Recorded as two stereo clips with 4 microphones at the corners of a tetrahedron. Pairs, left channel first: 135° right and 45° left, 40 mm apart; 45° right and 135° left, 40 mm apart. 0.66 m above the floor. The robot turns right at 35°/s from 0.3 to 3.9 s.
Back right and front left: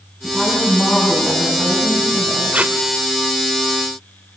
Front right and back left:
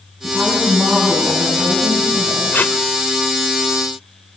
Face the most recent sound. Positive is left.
turn(degrees=35)